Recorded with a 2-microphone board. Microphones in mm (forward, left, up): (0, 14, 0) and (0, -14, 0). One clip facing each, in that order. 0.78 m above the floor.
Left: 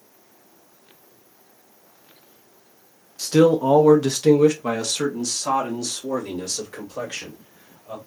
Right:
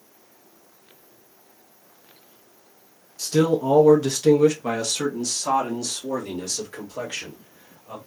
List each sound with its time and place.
3.2 s a man speaking: 30° left (ahead or behind), 0.5 m; by 8.0 s 5° right (ahead or behind), 2.5 m